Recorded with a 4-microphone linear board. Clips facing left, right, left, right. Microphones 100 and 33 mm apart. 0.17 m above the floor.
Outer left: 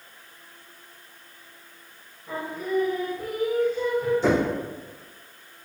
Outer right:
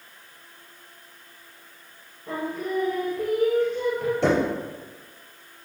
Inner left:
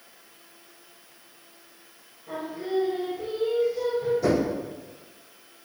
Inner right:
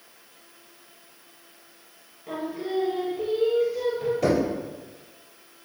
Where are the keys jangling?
No keys jangling in this recording.